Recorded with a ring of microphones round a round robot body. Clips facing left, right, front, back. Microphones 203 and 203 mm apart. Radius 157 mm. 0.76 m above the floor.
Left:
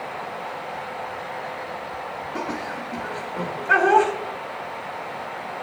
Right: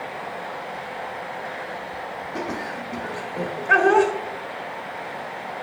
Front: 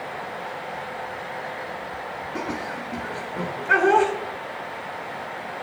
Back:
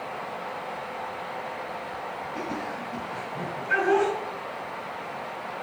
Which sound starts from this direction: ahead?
Laughter, at 2.4 s.